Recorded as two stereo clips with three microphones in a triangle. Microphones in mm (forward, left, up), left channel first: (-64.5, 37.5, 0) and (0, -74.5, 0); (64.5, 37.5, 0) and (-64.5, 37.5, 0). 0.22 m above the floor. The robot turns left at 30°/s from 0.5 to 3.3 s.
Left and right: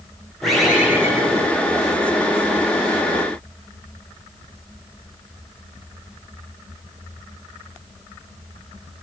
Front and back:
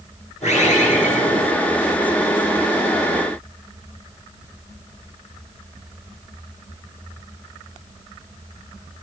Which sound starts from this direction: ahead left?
A bird, at 0.4 s.